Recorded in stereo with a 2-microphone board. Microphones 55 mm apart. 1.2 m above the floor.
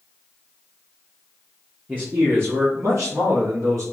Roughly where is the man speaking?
Right.